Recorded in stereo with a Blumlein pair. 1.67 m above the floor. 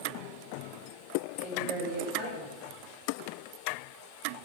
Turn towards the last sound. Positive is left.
turn(degrees=-5)